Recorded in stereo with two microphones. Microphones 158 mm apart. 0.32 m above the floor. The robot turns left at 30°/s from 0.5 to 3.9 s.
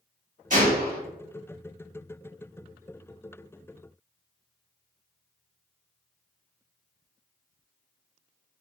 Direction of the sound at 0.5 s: 50° right (ahead or behind).